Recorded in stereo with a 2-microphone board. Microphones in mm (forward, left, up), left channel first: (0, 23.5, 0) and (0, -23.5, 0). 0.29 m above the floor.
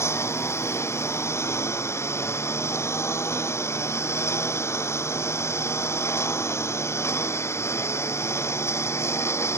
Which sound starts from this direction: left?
A lawn mower, at 0.0 s.